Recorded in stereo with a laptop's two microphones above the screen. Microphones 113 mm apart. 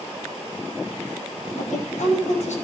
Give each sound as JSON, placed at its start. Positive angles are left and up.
{"t": 1.6, "sound": "a woman speaking", "side_deg": 85, "distance_m": 4.5}